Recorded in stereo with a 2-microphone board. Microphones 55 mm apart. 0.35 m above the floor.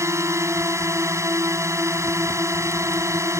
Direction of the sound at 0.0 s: 60° right (ahead or behind).